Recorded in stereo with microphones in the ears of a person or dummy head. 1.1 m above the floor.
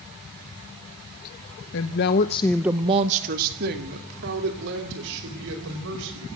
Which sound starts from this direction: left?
A woman speaking, at 1.7 s.